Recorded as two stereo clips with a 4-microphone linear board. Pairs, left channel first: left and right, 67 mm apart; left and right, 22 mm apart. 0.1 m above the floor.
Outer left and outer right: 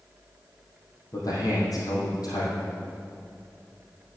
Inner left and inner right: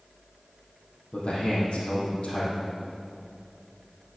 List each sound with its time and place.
1.1 s a man speaking: 65° left (ahead or behind), 4 m